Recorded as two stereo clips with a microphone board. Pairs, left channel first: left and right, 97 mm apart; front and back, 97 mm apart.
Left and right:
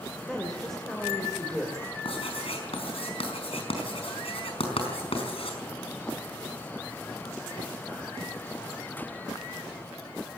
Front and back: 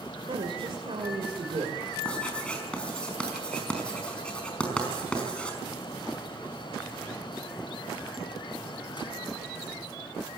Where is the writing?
80° left, 5 m.